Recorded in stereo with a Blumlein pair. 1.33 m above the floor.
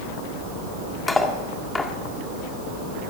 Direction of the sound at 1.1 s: 10° left.